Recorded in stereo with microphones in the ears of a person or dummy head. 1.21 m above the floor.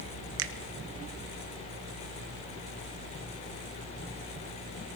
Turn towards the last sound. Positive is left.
turn(degrees=-75)  # may be behind; listen again after turning